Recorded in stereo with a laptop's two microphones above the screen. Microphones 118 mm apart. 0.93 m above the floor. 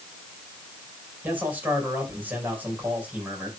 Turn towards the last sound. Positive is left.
turn(degrees=-15)  # may be behind; listen again after turning